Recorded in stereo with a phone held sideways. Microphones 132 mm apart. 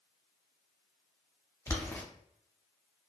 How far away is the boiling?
About 0.6 m.